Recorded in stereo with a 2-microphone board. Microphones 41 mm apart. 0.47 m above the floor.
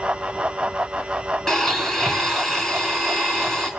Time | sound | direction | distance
1.5 | a blender | 15° left (ahead or behind) | 5 m